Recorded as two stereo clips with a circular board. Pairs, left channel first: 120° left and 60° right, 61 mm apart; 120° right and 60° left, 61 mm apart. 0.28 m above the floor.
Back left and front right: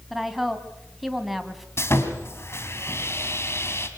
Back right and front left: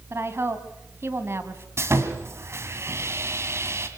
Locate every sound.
0.1 s a woman speaking: 30° left, 2 m
1.8 s sawing: 90° left, 2.5 m